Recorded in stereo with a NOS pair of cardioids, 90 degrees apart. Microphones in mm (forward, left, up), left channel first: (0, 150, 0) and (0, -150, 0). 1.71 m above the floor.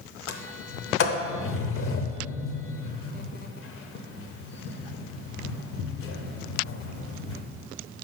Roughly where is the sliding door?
Ahead left.